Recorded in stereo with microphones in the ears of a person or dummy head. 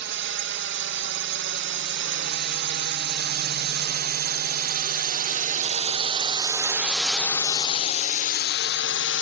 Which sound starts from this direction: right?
A drone, at 0.0 s.